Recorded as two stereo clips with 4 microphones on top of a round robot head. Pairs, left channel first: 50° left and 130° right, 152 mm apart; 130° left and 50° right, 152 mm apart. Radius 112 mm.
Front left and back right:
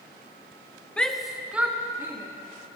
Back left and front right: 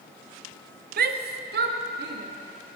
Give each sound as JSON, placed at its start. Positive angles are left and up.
{"t": 1.0, "sound": "a shout", "azimuth_deg": -35, "distance_m": 0.8}